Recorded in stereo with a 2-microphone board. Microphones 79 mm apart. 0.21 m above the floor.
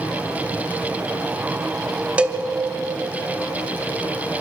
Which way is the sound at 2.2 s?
15° right (ahead or behind).